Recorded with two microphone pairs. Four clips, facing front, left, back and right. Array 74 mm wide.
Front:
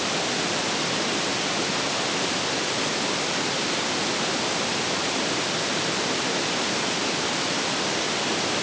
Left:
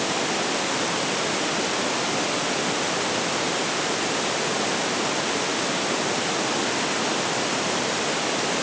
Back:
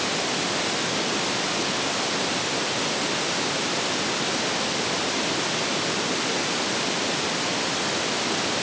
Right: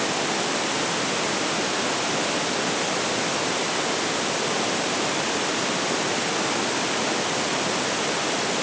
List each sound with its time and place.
Only background noise.